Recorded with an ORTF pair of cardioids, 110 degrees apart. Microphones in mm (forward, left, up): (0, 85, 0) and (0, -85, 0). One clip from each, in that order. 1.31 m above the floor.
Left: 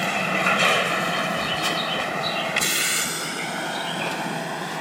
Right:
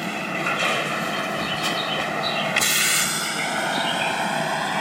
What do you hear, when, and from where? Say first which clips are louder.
0.0 s a vehicle: left 4 dB; 35° left; by 4.8 s 35° right